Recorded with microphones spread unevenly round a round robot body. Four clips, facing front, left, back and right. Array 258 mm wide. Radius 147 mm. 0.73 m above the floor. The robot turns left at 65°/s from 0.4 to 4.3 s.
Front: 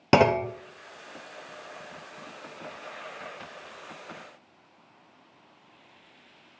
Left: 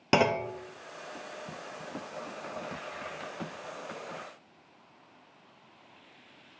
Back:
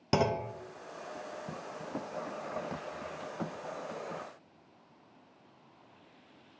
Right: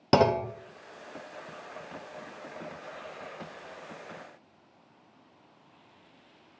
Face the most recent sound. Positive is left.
turn(degrees=105)